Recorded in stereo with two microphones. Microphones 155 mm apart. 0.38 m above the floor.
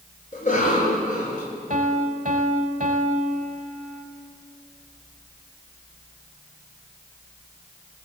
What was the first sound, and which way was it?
A cough, 55° left (ahead or behind).